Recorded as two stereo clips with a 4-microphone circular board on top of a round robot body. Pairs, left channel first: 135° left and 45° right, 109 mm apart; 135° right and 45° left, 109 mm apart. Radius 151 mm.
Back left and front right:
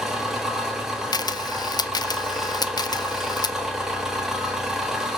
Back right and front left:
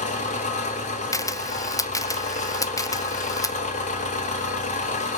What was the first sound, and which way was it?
An engine running, 130° right.